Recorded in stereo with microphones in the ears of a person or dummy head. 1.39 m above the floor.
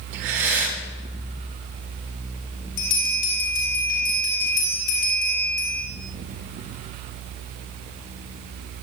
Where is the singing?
No singing in this recording.